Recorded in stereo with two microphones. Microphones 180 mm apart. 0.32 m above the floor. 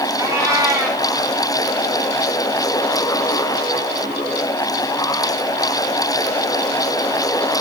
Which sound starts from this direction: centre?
A cat meowing, at 0.2 s.